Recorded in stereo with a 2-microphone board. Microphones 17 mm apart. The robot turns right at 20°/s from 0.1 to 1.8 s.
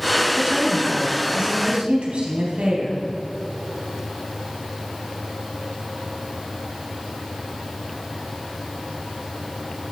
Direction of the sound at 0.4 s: 45° right (ahead or behind).